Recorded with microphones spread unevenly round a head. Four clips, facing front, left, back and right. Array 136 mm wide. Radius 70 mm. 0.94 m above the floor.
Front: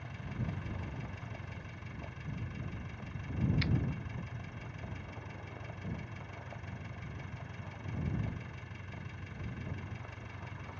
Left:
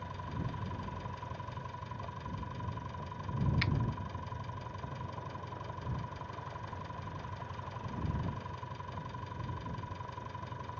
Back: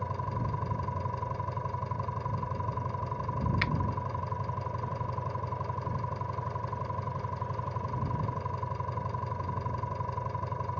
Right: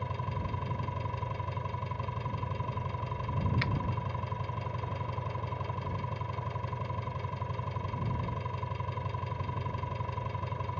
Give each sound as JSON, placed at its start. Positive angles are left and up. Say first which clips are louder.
{"t": 0.0, "sound": "an engine running", "louder": "right 5 dB, back 9 dB", "azimuth_deg": -150}
{"t": 3.6, "sound": "a finger snap", "louder": "right 2 dB, back 5 dB", "azimuth_deg": -175}